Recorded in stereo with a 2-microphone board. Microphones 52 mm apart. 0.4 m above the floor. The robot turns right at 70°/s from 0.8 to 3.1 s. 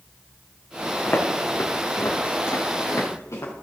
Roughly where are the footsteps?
Left.